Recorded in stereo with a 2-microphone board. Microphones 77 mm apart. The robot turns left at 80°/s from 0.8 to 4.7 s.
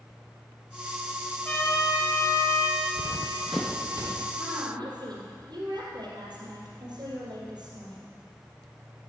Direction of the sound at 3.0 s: 70° left (ahead or behind).